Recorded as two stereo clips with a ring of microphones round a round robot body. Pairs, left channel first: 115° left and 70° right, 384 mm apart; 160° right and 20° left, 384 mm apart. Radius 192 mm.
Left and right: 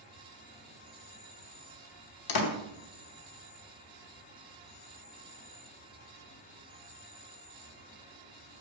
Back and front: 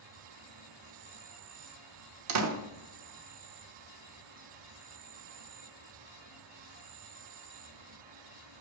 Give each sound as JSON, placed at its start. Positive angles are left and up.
{"t": 0.0, "sound": "an insect", "azimuth_deg": 45, "distance_m": 0.9}
{"t": 2.3, "sound": "a door slam", "azimuth_deg": 75, "distance_m": 1.0}